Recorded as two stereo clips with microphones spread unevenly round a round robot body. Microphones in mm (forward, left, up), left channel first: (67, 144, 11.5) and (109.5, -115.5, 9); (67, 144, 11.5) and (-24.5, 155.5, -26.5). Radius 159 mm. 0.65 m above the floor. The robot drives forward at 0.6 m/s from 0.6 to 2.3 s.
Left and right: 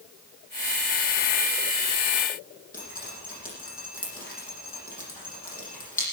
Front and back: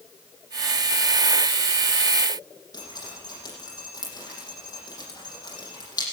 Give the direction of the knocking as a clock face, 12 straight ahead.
No knocking in this recording.